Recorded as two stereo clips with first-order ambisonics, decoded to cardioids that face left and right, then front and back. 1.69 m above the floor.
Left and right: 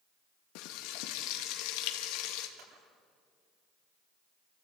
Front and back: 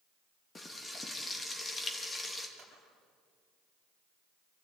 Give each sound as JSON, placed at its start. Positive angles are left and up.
{"t": 0.6, "sound": "frying", "azimuth_deg": 75, "distance_m": 2.0}
{"t": 2.6, "sound": "a camera shutter", "azimuth_deg": -110, "distance_m": 9.0}